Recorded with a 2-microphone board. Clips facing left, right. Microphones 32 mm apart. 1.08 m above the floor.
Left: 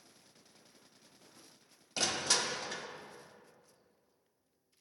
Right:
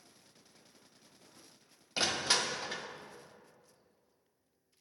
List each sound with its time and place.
2.0 s crushing: 25° right (ahead or behind), 0.6 m